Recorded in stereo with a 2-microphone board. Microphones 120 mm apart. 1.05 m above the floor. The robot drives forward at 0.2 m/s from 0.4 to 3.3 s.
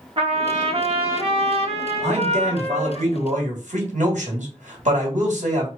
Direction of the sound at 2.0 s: 65° right (ahead or behind).